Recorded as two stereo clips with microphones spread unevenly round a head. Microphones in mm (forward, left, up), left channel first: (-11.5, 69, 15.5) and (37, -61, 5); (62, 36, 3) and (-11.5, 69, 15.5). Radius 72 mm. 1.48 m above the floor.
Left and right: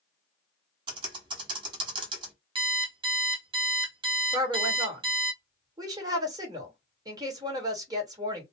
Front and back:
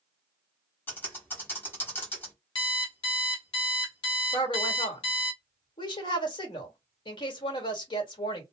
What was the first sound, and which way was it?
Typing on a keyboard, 85° right.